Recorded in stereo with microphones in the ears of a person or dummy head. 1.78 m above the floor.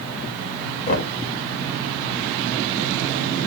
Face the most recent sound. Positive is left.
turn(degrees=35)  # may be behind; listen again after turning